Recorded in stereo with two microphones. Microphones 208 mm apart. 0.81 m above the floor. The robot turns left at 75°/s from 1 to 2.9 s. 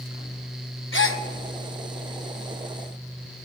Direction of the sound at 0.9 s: 70° left (ahead or behind).